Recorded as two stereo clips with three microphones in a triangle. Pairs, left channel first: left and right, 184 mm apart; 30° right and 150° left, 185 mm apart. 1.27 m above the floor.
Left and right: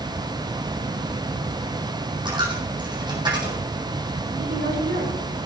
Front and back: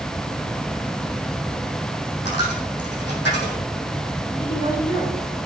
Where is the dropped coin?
25° right, 4 m.